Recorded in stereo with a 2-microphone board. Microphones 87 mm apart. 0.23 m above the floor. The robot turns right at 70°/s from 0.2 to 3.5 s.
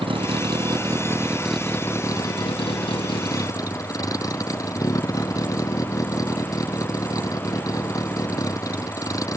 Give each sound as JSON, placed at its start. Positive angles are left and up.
{"t": 0.0, "sound": "a vehicle", "azimuth_deg": -90}